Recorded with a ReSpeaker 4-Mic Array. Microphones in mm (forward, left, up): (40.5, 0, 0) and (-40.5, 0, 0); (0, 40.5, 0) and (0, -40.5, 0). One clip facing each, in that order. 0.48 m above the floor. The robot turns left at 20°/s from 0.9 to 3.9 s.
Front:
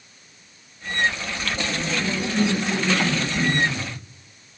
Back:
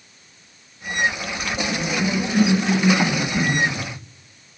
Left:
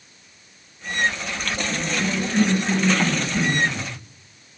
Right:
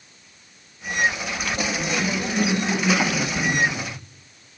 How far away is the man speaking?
I don't hear a man speaking.